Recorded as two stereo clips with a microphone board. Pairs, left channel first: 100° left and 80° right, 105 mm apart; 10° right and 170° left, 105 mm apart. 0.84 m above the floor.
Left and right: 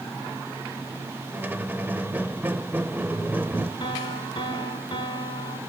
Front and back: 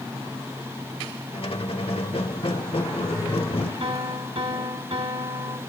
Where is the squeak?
5° right, 0.9 m.